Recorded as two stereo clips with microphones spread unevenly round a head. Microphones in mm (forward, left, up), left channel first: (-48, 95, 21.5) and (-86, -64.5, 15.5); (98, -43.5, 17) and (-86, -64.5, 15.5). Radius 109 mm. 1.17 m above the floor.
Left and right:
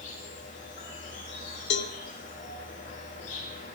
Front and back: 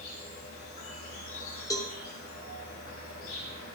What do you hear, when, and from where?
0.0 s an insect: 40° left, 5 m
1.7 s a cowbell: 80° left, 1.1 m